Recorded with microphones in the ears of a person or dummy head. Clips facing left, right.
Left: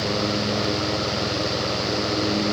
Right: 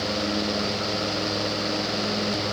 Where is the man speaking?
No man speaking in this recording.